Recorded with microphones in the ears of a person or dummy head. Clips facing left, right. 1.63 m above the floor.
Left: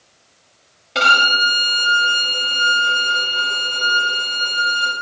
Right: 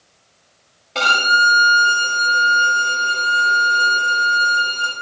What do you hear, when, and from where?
0.9 s a violin: 15° left (ahead or behind), 1.9 m